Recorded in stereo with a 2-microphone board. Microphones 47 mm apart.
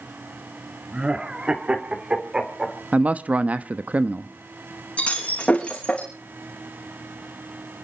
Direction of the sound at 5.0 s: 25° left (ahead or behind).